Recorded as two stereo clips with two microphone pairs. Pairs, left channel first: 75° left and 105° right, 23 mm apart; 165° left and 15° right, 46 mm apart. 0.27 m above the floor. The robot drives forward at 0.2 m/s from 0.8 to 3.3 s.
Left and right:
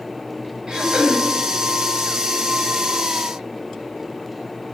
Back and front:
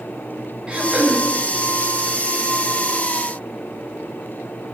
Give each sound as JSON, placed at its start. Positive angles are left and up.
{"t": 0.7, "sound": "throat clearing", "azimuth_deg": -80, "distance_m": 0.8}